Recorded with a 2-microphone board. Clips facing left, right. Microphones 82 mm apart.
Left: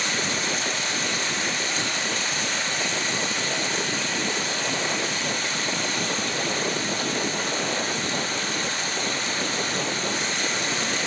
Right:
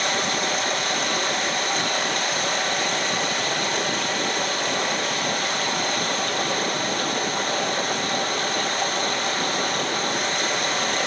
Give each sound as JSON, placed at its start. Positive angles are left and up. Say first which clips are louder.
{"t": 0.0, "sound": "running water", "louder": "right 4 dB", "side_deg": -55, "distance_m": 5.5}